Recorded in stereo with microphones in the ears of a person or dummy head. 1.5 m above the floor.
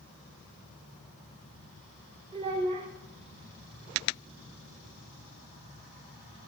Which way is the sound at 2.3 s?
25° right (ahead or behind).